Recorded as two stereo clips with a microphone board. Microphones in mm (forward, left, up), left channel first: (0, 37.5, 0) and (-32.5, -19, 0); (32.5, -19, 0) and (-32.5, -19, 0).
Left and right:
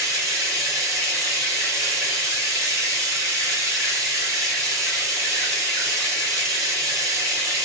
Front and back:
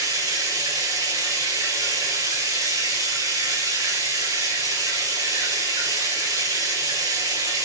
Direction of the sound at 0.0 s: 160° right.